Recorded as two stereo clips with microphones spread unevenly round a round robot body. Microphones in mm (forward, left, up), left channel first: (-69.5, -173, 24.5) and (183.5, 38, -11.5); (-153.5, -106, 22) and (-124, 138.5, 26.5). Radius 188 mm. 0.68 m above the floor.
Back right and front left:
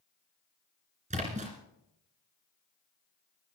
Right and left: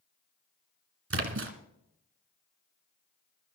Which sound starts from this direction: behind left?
A splash, at 1.1 s.